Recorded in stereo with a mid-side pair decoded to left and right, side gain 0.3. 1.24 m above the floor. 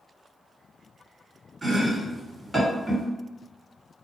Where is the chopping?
35° right, 1.8 m.